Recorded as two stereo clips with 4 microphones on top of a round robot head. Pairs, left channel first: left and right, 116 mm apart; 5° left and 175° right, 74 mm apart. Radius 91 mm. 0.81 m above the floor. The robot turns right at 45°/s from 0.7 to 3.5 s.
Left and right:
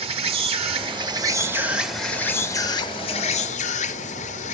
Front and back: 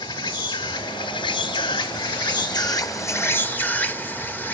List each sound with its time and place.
0.0 s an insect: 55° right, 1.0 m; by 4.5 s 70° left, 1.0 m